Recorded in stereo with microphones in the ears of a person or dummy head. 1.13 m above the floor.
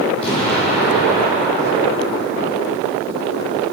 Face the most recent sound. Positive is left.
turn(degrees=35)  # may be behind; listen again after turning